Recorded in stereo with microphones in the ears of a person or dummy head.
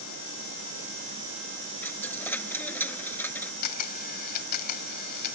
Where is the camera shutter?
50° left (ahead or behind).